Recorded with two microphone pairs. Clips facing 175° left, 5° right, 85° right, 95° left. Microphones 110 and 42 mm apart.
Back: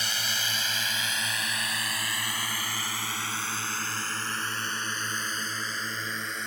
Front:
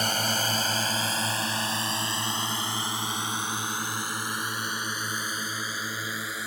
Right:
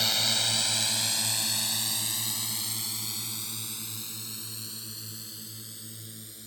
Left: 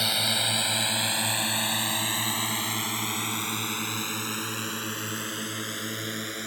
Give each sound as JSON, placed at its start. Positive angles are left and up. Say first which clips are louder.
{"t": 0.0, "sound": "a drone", "louder": "front 7 dB, left 2 dB", "azimuth_deg": 15}